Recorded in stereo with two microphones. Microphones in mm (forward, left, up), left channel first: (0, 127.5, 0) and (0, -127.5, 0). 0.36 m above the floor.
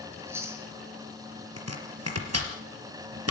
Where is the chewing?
10° right (ahead or behind), 7.5 m.